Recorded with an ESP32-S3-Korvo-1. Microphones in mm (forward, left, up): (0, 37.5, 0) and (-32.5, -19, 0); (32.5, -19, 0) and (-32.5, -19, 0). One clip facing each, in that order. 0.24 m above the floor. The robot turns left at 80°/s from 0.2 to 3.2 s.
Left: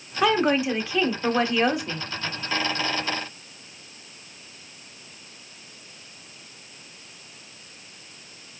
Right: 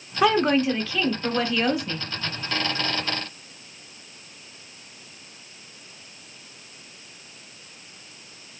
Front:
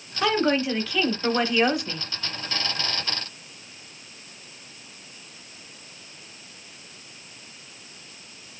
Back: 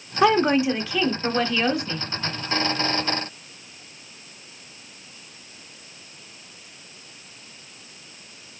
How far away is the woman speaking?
About 0.9 m.